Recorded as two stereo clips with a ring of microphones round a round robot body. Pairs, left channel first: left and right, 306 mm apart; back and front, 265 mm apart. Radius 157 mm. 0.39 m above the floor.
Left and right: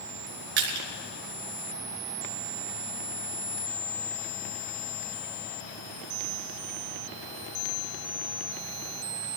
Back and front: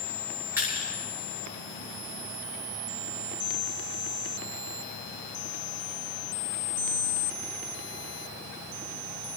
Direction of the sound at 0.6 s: 85° right.